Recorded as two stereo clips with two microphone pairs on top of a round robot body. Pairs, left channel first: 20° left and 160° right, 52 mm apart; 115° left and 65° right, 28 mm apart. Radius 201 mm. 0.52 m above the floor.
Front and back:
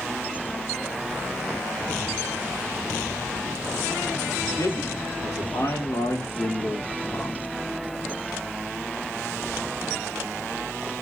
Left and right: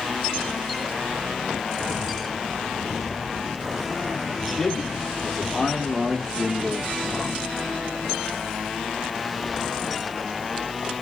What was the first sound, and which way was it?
A man speaking, 30° left.